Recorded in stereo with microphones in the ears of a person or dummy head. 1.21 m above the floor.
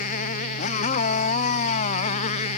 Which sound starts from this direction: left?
A motorcycle, at 0.0 s.